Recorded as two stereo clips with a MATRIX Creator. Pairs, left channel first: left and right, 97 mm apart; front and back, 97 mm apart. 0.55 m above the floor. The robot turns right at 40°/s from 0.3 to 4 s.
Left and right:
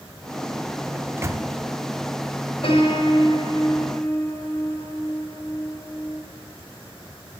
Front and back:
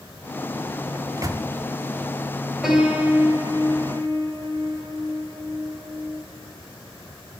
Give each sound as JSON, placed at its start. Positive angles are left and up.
{"t": 0.9, "sound": "a microwave", "azimuth_deg": -155, "distance_m": 0.7}
{"t": 2.6, "sound": "a piano", "azimuth_deg": 90, "distance_m": 3.5}